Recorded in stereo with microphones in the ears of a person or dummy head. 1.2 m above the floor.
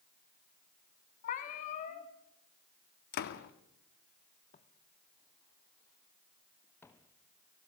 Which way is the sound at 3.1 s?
55° left (ahead or behind).